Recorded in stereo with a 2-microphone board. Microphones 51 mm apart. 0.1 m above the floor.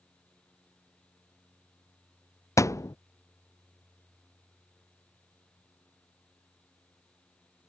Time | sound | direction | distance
2.6 | a thud | 85° left | ?